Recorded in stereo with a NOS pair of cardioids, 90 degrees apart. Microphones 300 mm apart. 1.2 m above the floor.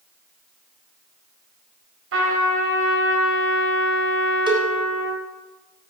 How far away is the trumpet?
About 4 m.